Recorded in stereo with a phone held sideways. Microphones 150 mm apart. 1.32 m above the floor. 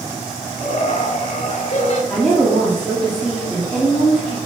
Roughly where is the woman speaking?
Centre.